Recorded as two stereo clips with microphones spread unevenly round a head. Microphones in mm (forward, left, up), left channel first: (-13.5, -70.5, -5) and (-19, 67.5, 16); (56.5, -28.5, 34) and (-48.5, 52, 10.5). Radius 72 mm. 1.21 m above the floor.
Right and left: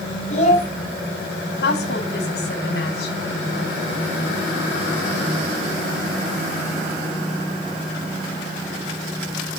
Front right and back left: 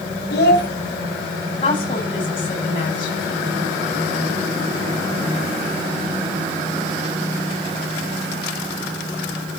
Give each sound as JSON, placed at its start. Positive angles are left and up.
{"t": 0.3, "sound": "a child speaking", "azimuth_deg": -40, "distance_m": 5.0}
{"t": 1.6, "sound": "a woman speaking", "azimuth_deg": -90, "distance_m": 8.5}